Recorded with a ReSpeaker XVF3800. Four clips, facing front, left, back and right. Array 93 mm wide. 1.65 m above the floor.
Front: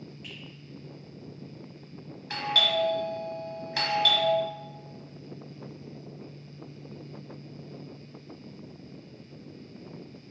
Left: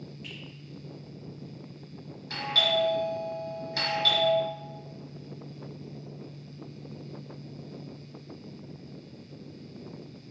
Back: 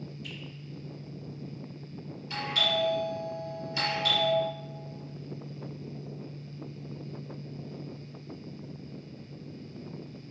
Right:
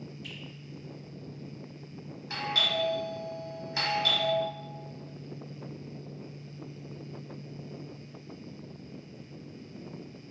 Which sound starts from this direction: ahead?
A doorbell, at 2.3 s.